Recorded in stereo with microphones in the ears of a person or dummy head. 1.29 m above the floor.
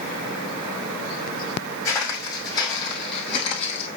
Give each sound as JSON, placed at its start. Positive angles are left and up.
{"t": 1.9, "sound": "footsteps", "side_deg": 25, "distance_m": 3.0}